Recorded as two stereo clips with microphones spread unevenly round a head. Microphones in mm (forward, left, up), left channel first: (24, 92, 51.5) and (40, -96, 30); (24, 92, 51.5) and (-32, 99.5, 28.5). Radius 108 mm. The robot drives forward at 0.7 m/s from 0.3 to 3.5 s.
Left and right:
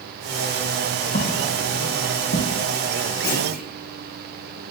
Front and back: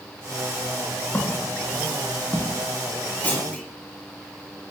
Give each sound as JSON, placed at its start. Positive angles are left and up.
{"t": 1.1, "sound": "footsteps", "azimuth_deg": 50, "distance_m": 7.5}
{"t": 3.2, "sound": "a clunk", "azimuth_deg": 55, "distance_m": 9.0}